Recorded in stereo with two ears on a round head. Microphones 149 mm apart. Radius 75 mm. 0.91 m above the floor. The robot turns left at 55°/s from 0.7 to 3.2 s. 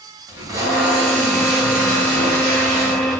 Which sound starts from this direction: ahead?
Tape being pulled, at 0.3 s.